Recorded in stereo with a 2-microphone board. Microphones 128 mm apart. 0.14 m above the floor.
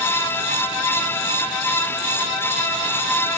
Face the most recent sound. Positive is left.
No sound to turn to.